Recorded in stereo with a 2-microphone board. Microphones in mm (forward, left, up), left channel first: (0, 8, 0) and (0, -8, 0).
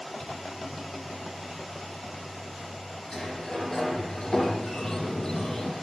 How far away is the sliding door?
About 9 m.